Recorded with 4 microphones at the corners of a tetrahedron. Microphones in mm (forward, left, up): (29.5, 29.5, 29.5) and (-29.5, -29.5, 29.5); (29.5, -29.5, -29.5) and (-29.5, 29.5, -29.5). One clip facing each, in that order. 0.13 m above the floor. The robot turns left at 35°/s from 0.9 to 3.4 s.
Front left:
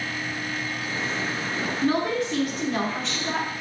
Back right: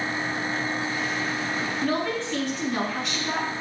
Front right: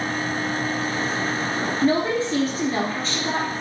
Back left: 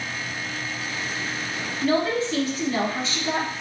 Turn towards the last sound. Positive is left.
turn(degrees=-65)